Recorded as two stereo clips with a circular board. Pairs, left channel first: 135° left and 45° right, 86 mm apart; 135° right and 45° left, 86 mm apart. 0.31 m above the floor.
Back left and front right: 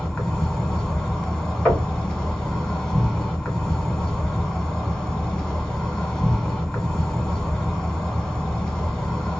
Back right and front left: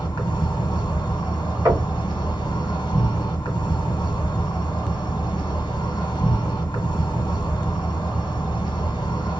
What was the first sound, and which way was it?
An insect, 140° right.